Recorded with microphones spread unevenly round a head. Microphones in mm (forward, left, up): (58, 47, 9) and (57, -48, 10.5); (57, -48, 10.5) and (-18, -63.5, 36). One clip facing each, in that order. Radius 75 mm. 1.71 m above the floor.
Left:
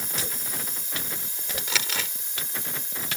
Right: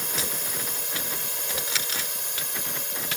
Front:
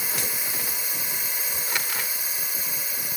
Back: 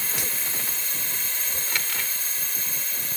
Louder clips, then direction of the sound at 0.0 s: Right 3 dB, front 1 dB; 65° right.